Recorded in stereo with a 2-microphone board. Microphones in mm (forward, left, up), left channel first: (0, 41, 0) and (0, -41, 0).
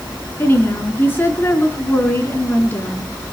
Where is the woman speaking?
25° left (ahead or behind), 3.5 m.